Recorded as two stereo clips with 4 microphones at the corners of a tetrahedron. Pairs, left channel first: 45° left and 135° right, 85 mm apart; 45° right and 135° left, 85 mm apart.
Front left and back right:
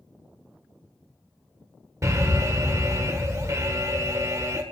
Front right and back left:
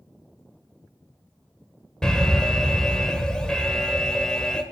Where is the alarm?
120° right, 1.4 m.